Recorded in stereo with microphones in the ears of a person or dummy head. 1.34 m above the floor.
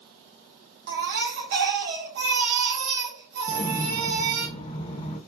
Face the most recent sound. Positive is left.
turn(degrees=20)  # may be behind; listen again after turning